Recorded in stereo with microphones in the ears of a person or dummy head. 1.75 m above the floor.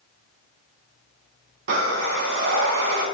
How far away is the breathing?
About 1.3 m.